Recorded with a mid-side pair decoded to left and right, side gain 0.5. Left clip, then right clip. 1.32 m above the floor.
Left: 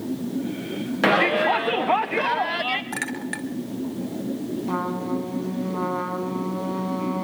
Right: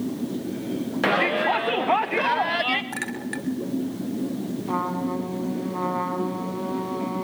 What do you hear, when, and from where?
1.0 s a shout: 20° left, 0.9 m; by 2.8 s 10° right, 1.6 m
2.9 s a clink: 20° left, 3 m
4.7 s a trumpet: straight ahead, 5.5 m